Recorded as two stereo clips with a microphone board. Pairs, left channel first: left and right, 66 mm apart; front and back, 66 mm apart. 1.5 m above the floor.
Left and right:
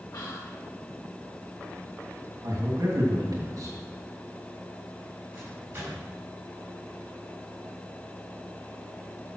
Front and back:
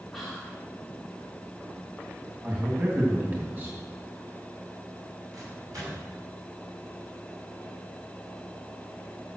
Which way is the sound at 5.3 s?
150° right.